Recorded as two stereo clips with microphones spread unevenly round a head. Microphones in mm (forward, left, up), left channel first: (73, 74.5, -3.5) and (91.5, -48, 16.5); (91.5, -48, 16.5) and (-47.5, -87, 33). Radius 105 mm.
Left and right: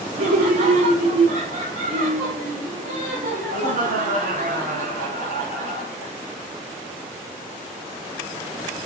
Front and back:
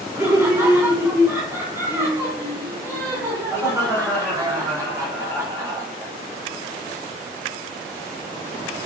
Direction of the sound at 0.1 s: 90° right.